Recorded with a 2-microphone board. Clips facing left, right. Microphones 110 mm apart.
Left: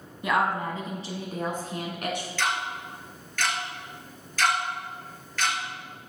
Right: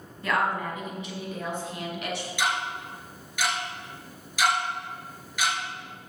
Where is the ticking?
15° right (ahead or behind), 2.5 m.